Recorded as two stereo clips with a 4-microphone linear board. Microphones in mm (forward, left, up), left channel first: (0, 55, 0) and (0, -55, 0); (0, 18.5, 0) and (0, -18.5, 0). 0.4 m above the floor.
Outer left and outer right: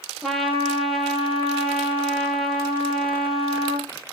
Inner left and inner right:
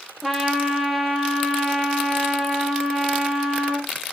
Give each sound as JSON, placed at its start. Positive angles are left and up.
{"t": 0.2, "sound": "a trumpet", "side_deg": 0, "distance_m": 3.0}